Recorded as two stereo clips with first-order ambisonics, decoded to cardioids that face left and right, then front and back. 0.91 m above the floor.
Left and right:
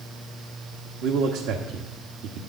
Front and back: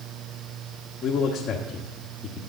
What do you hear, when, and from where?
1.0 s a man speaking: 60° right, 1.2 m